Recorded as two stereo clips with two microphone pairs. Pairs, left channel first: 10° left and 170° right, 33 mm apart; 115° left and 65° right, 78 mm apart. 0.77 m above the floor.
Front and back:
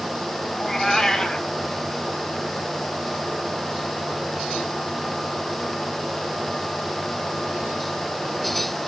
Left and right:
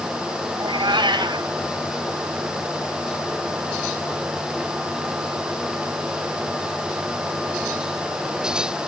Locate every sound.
0.6 s a cat meowing: 65° right, 2.5 m